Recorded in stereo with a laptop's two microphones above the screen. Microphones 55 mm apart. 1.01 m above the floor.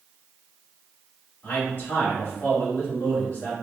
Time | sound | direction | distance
1.4 | a man speaking | 35° left (ahead or behind) | 2.0 m